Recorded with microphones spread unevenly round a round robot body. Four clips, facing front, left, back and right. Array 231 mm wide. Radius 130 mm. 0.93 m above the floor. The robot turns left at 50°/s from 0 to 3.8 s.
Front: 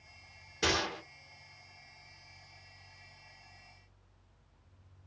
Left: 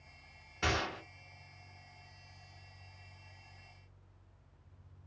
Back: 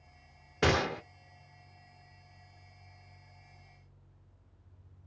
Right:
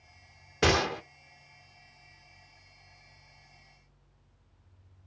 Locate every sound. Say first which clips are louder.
0.6 s a gunshot: right 9 dB, back 4 dB; 120° right, 0.5 m; by 1.0 s 140° right, 0.5 m